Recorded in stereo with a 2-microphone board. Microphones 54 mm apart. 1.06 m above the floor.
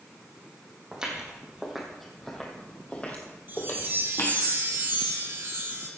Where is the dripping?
No dripping in this recording.